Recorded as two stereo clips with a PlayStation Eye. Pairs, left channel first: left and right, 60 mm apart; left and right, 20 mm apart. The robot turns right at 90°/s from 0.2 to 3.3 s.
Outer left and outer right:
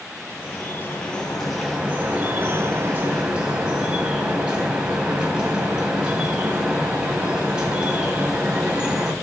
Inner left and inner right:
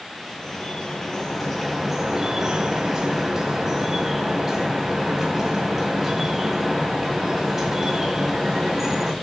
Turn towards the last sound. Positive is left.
turn(degrees=-25)